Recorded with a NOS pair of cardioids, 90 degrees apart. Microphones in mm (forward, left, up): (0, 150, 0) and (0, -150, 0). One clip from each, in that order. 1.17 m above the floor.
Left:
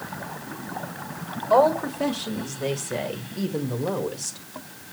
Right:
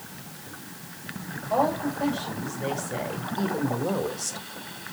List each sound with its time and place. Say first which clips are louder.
1.5 s a woman speaking: left 6 dB; 55° left, 2 m; by 4.4 s straight ahead, 1.8 m